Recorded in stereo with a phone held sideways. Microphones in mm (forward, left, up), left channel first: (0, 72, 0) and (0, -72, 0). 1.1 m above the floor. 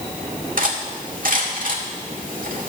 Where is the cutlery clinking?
70° right (ahead or behind), 1.9 m.